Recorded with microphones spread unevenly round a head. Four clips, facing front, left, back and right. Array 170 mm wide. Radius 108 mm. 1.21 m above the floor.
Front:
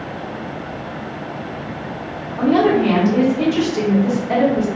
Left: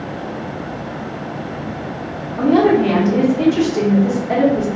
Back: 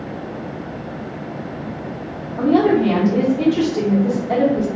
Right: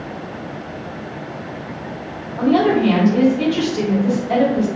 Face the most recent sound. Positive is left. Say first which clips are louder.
# left 2 dB, even
turn(degrees=130)